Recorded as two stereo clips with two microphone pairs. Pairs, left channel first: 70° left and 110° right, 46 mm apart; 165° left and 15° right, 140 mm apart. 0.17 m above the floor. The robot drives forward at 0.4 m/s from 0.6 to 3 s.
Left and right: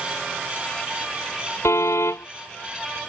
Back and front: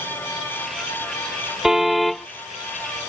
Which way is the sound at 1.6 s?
70° left.